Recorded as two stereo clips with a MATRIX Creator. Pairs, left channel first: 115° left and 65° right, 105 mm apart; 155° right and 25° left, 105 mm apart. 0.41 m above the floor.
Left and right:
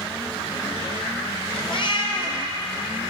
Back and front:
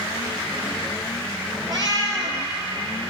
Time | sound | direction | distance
1.7 | a cat meowing | 75° left | 2.5 m